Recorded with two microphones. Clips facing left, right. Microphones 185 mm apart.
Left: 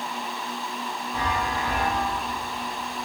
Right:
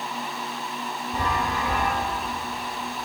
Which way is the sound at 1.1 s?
45° right (ahead or behind).